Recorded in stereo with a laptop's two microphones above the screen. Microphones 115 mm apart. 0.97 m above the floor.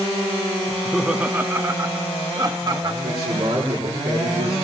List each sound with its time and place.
0.7 s laughter: 10° left (ahead or behind), 0.6 m; by 2.9 s 40° right (ahead or behind), 1.5 m
3.0 s a man speaking: 80° right, 9.5 m